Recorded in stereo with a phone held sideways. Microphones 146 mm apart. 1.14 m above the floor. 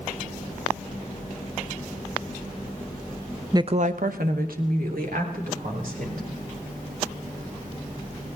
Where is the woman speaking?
20° right (ahead or behind), 0.6 m; by 6.2 s 85° right, 4.5 m.